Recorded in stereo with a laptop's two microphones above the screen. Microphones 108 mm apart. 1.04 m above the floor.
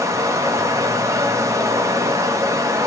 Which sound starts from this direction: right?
Running water, at 0.0 s.